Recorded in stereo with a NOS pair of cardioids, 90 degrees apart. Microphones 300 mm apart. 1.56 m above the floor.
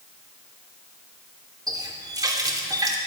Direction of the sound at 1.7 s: 10° right.